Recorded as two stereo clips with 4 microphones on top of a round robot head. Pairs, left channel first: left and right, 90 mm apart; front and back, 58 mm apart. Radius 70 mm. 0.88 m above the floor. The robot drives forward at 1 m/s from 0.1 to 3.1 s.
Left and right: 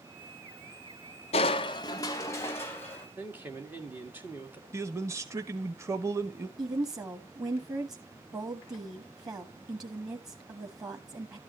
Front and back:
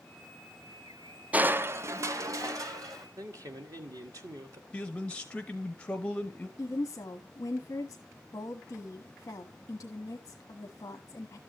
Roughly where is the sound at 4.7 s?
Ahead right.